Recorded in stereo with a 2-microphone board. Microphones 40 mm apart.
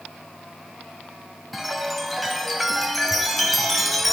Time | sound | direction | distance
1.5 | a chime | centre (ahead or behind) | 1.7 m